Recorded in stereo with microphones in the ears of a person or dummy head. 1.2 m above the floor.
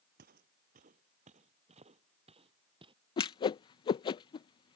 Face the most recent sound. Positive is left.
turn(degrees=30)  # may be behind; listen again after turning